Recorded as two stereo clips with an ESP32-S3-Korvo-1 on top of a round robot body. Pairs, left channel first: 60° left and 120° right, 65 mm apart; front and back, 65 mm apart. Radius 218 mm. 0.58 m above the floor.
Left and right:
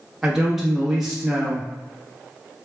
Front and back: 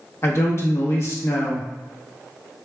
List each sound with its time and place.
0.2 s a man speaking: 35° right, 1.1 m